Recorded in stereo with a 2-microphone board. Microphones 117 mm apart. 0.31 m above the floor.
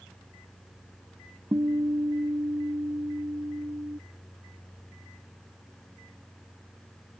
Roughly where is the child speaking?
No child speaking in this recording.